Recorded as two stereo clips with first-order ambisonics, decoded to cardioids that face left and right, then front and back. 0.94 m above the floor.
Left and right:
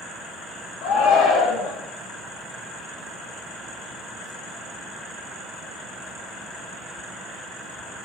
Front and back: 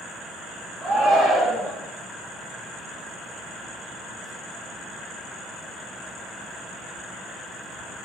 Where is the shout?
105° left, 0.5 m.